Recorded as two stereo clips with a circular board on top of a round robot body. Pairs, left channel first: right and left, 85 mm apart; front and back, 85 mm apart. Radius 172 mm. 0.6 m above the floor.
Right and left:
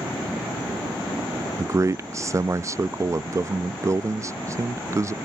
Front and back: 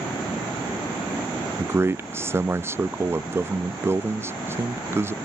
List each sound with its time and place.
1.6 s a man speaking: 130° left